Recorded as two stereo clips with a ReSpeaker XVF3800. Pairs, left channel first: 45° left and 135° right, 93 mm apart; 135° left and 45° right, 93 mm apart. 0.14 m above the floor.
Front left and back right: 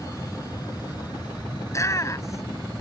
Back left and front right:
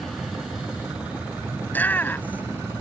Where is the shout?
75° left.